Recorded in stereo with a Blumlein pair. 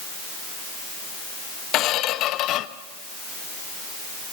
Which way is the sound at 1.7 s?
35° left.